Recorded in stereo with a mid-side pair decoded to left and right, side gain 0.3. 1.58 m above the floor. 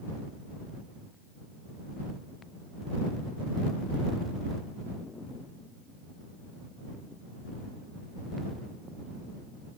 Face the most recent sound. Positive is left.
No sound to turn to.